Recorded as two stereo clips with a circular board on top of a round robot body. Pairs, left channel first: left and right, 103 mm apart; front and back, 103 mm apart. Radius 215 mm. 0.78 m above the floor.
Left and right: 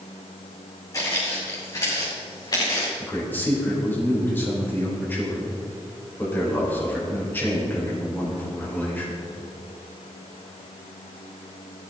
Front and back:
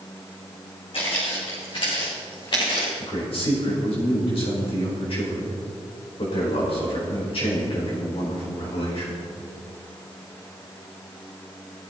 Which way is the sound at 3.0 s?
20° left.